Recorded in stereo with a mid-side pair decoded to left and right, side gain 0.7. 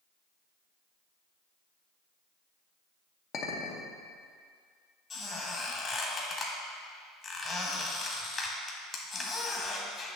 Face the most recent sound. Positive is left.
turn(degrees=30)